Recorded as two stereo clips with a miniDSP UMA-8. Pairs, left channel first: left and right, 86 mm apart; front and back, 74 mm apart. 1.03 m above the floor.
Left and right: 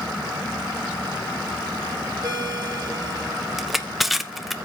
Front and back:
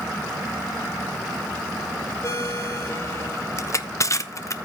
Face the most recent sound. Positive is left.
turn(degrees=0)